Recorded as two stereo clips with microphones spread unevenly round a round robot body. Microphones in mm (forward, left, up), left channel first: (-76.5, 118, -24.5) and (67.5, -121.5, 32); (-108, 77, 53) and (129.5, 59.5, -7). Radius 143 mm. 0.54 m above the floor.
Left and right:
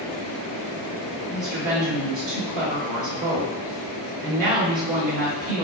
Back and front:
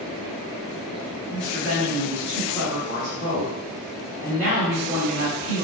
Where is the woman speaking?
70° right, 2.0 m.